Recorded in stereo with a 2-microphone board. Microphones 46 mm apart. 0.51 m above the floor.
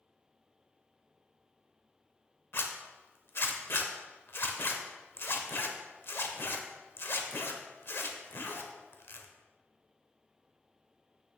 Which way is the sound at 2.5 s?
55° left (ahead or behind).